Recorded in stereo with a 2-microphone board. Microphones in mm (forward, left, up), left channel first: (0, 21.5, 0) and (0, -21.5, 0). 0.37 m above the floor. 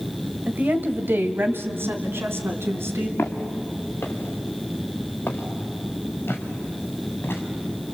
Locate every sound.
0.5 s a woman speaking: 40° right (ahead or behind), 1.3 m; by 3.1 s 75° right (ahead or behind), 3.5 m
3.2 s footsteps: 60° left (ahead or behind), 3 m; by 7.4 s 55° left (ahead or behind), 5.5 m